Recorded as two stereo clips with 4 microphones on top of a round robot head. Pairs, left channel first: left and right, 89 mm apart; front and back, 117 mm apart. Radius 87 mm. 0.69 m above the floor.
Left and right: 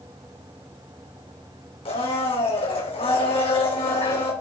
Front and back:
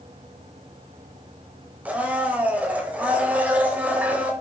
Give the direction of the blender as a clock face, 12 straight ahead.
9 o'clock.